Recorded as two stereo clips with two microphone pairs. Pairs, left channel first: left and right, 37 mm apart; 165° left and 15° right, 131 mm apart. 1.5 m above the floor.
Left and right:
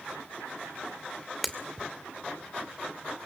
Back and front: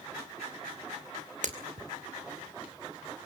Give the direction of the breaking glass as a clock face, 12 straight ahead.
12 o'clock.